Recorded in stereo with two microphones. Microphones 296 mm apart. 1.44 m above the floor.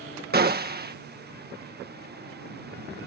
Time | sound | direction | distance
0.3 | a gunshot | 30° right (ahead or behind) | ?